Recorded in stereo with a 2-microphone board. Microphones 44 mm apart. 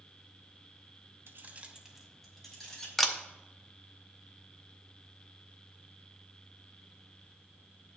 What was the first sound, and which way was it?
Keys jangling, 65° right (ahead or behind).